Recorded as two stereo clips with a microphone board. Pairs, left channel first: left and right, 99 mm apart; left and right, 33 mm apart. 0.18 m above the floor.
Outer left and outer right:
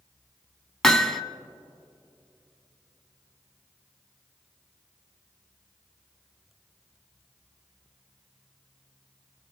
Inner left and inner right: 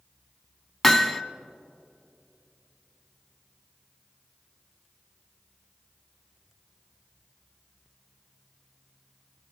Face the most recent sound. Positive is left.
turn(degrees=5)  # may be behind; listen again after turning